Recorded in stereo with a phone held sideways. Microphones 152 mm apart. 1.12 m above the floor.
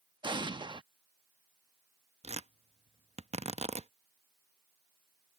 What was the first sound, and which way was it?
An explosion, 30° right (ahead or behind).